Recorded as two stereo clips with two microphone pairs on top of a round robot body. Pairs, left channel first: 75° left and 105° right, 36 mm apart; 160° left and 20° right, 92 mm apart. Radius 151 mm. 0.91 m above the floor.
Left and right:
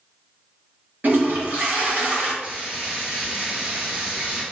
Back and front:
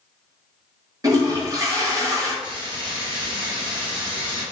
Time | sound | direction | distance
1.0 | a toilet flushing | 75° right | 1.0 m
2.4 | frying | 50° right | 1.1 m